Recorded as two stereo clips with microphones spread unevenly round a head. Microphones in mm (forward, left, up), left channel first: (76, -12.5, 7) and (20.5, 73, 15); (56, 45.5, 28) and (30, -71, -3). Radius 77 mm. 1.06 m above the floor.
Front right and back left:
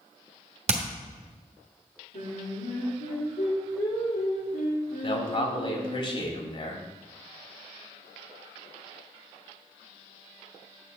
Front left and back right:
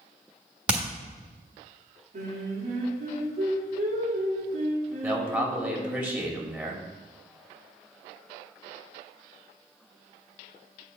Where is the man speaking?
25° right, 3 m.